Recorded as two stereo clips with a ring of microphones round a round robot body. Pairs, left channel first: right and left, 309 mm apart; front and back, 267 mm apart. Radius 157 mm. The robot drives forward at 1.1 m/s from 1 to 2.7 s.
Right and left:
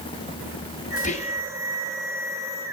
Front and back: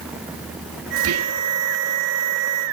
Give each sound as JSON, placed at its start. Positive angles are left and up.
{"t": 1.0, "sound": "whispering", "azimuth_deg": -150, "distance_m": 0.8}